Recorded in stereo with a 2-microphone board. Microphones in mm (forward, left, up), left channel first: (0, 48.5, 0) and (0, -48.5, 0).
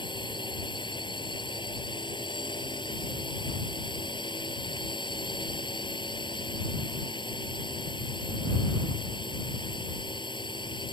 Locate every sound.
0.0 s a drone: 60° left (ahead or behind)